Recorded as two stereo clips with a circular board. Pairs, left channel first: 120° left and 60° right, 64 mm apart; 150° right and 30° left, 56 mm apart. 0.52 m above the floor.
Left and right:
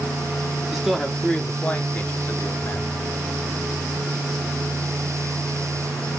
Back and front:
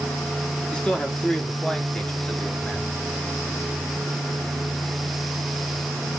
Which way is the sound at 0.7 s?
125° right.